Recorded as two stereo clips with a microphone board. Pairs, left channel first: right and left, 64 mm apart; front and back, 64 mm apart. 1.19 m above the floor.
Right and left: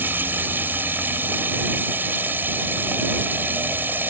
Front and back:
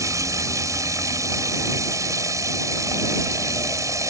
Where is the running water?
150° left.